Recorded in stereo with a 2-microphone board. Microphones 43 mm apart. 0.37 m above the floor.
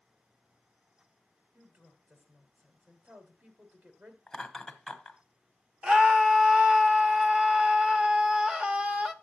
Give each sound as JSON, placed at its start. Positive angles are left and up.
{"t": 1.5, "sound": "a woman speaking", "side_deg": -45, "distance_m": 1.9}
{"t": 4.3, "sound": "laughter", "side_deg": 5, "distance_m": 1.2}
{"t": 5.8, "sound": "a scream", "side_deg": -25, "distance_m": 0.9}